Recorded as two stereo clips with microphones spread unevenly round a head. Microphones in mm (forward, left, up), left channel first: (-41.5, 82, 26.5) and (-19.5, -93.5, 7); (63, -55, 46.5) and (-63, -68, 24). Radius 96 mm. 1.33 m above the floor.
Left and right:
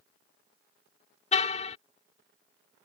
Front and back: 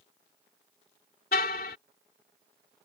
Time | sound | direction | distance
1.3 | a car horn | 40° left | ?